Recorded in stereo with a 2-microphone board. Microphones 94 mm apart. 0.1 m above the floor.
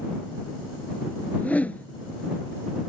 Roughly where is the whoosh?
Centre.